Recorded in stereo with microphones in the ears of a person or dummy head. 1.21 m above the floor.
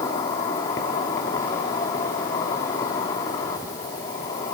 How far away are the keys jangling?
I don't hear keys jangling.